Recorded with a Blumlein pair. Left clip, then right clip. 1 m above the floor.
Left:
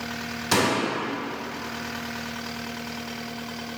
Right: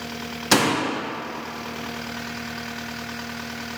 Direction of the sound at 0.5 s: 15° right.